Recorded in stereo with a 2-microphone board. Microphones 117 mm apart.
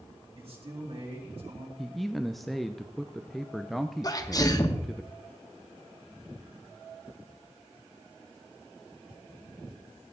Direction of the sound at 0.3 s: 55° right (ahead or behind).